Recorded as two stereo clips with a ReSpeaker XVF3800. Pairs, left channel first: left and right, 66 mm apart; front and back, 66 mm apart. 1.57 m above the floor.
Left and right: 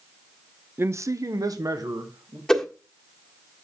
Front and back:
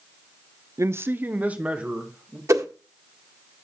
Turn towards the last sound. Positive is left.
turn(degrees=170)